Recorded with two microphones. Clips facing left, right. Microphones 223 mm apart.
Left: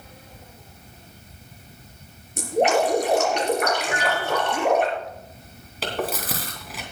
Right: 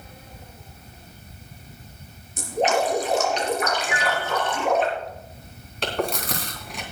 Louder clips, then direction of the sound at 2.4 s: Left 3 dB; 60° left (ahead or behind).